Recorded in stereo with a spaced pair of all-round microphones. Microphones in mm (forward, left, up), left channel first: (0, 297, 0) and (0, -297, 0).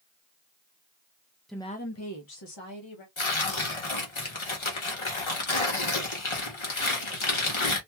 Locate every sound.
1.5 s a woman speaking: centre (ahead or behind), 0.6 m; by 3.1 s 50° left (ahead or behind), 1.1 m
3.2 s tearing paper: 50° left (ahead or behind), 1.0 m